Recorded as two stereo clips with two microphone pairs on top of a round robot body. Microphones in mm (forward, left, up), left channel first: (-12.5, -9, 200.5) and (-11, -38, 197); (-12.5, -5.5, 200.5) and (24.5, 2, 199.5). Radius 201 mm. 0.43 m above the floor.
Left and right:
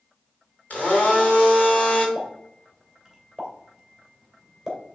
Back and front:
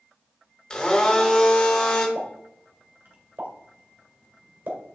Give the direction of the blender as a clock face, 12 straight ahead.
8 o'clock.